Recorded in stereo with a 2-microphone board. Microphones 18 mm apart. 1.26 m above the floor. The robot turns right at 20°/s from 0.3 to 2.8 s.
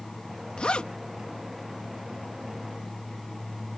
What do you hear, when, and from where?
0.6 s a zipper: 65° left (ahead or behind); by 0.9 s 75° left (ahead or behind)